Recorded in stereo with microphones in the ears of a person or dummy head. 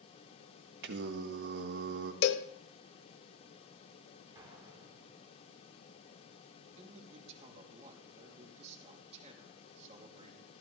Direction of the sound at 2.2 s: 70° left (ahead or behind).